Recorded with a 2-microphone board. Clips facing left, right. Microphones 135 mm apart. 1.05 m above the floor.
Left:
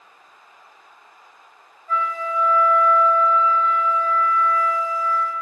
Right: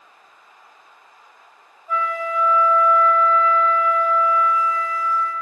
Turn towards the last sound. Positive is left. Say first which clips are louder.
# right 1 dB
turn(degrees=-15)  # may be behind; listen again after turning